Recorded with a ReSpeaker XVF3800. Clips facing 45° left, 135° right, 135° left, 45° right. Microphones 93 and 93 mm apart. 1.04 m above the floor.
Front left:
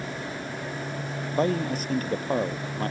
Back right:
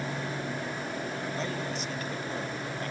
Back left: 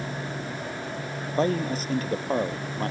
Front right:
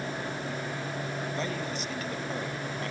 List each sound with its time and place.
1.4 s a man speaking: 90° left